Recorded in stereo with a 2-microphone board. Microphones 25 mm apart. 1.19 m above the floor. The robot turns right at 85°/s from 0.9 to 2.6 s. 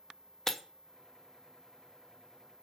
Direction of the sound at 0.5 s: 20° left (ahead or behind).